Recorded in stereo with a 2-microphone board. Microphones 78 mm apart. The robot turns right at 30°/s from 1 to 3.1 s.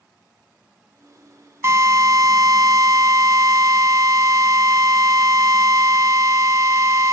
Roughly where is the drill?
Behind right.